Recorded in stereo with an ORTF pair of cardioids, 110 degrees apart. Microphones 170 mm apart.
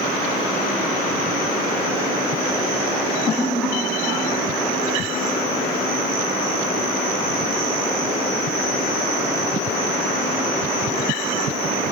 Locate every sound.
3.4 s laughter: 10° left, 2 m; by 5.5 s 40° left, 3.5 m